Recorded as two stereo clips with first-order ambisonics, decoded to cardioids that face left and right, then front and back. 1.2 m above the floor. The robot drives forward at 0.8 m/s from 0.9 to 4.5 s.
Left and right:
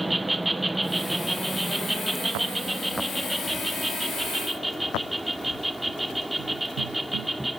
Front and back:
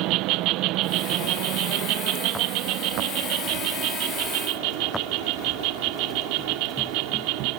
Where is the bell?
I don't hear a bell.